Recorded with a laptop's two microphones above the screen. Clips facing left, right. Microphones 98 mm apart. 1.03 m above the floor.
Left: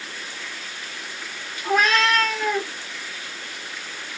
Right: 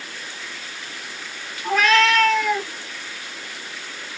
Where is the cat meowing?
25° left (ahead or behind), 1.9 m.